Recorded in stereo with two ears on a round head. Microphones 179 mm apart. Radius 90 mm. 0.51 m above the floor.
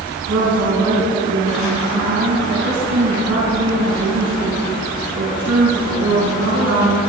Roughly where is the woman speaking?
Right.